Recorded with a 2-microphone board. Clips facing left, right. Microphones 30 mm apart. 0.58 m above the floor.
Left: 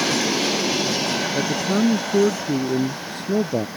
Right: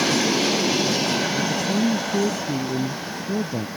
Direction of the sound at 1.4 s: 65° left (ahead or behind).